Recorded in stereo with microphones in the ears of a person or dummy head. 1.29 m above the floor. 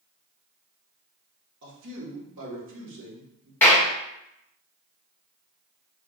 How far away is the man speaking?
About 1.3 m.